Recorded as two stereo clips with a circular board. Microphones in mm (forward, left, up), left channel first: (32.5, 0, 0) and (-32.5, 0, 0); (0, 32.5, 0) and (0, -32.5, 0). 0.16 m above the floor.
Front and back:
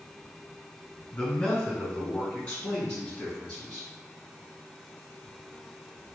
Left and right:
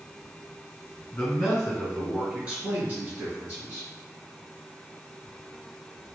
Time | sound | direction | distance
1.1 | a man speaking | 40° left | 1.3 m